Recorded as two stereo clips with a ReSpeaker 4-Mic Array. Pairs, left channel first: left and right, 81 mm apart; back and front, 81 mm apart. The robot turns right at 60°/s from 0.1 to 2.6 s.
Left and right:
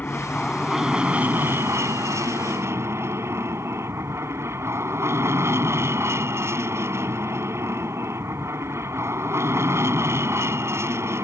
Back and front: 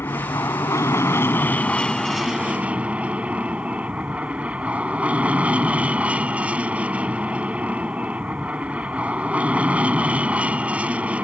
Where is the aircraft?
145° left; by 11.3 s 65° right.